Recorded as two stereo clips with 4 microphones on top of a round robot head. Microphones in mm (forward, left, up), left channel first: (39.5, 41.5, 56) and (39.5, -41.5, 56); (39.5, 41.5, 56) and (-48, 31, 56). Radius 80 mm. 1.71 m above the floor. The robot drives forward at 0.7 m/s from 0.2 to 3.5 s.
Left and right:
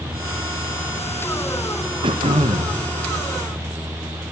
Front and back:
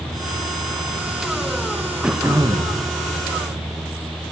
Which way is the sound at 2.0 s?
85° right.